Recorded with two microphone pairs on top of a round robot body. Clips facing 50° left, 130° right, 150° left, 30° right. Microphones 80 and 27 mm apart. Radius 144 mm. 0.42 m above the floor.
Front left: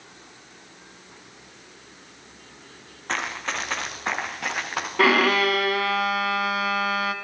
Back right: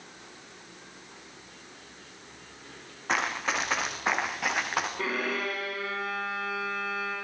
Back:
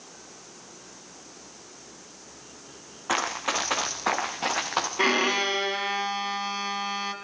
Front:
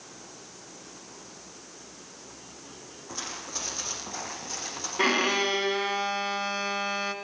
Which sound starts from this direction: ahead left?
A violin, at 5.0 s.